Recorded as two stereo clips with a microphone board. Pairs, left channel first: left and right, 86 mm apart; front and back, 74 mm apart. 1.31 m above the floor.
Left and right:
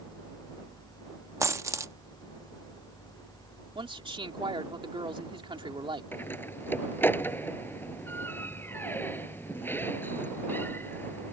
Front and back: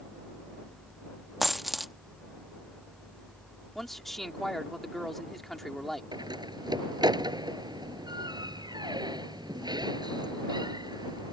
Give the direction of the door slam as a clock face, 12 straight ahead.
7 o'clock.